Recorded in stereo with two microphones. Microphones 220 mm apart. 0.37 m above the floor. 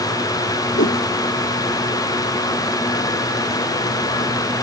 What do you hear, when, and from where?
0.8 s a whoosh: 65° left (ahead or behind)